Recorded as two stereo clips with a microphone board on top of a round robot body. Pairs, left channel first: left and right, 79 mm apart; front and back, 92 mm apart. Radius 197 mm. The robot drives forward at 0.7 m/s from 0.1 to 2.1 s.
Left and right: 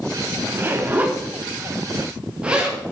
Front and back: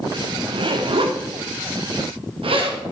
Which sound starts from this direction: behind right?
A zipper, at 0.5 s.